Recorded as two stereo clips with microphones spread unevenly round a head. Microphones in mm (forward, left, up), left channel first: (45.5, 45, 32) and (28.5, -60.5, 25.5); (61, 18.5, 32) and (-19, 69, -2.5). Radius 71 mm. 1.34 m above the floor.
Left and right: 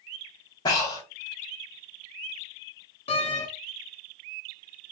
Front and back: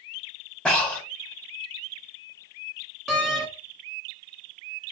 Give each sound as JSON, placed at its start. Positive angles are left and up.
{"t": 0.7, "sound": "breathing", "azimuth_deg": 35, "distance_m": 1.9}
{"t": 3.1, "sound": "a door slam", "azimuth_deg": 50, "distance_m": 1.5}